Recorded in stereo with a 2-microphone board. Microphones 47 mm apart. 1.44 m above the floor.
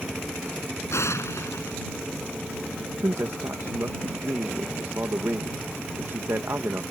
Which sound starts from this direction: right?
A man speaking, at 3.0 s.